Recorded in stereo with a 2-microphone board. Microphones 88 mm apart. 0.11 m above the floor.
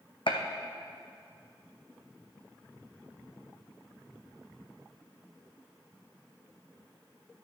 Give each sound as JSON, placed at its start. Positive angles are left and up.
{"t": 0.3, "sound": "a gunshot", "side_deg": 75, "distance_m": 1.0}